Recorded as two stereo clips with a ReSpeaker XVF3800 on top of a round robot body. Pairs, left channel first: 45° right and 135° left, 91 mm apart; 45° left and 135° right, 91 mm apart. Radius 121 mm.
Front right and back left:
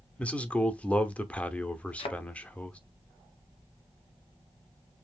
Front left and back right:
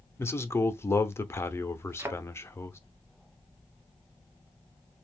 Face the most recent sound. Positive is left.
turn(degrees=-70)